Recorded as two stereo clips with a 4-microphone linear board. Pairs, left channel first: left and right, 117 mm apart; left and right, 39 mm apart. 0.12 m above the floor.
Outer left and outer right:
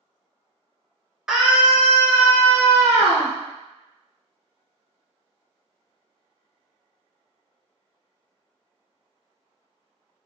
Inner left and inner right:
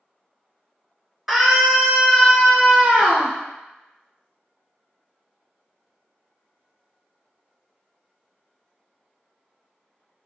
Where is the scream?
5° right (ahead or behind), 1.5 m; by 3.3 s 25° right (ahead or behind), 1.6 m.